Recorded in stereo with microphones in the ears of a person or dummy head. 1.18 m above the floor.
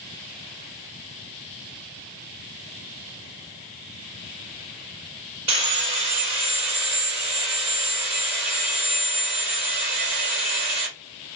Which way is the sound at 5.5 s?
55° right (ahead or behind).